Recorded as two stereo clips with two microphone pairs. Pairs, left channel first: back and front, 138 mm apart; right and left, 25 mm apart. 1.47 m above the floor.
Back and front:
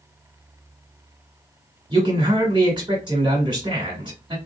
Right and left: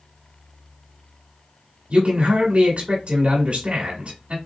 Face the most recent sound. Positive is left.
turn(degrees=55)